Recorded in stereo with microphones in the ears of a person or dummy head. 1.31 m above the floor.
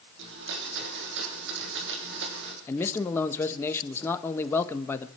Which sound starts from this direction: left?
A man speaking, at 2.7 s.